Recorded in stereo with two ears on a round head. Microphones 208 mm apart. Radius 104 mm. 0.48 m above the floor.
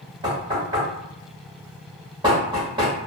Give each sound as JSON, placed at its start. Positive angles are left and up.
{"t": 0.2, "sound": "knocking", "side_deg": -20, "distance_m": 2.0}